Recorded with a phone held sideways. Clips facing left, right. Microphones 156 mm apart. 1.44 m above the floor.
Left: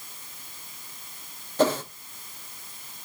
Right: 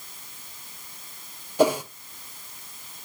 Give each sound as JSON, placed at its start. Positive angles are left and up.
{"t": 1.6, "sound": "a whoosh", "side_deg": -10, "distance_m": 0.6}